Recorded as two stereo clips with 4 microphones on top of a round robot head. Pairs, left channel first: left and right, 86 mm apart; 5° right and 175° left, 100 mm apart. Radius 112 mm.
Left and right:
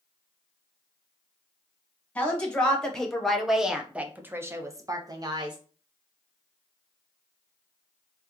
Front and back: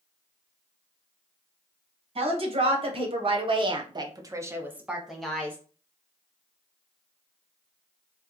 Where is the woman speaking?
165° left, 1.6 m; by 5.6 s 80° right, 0.9 m.